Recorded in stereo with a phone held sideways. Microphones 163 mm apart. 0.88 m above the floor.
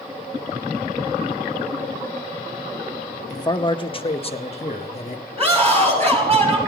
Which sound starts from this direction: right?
A scream, at 5.4 s.